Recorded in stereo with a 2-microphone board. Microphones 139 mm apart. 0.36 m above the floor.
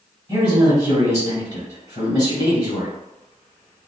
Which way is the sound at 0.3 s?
35° right (ahead or behind).